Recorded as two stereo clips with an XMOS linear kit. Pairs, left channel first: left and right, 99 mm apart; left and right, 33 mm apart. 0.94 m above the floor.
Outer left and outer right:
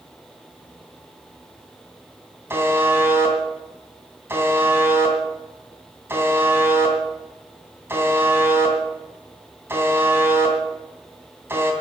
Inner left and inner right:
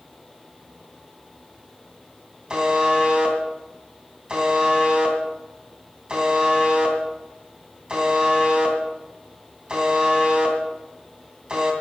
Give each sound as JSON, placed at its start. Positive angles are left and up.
{"t": 2.5, "sound": "a buzzer", "side_deg": -25, "distance_m": 2.5}